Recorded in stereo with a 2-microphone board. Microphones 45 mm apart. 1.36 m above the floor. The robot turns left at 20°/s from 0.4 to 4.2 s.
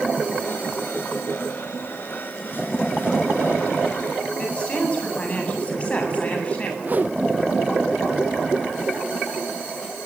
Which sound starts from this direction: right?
A whoosh, at 6.8 s.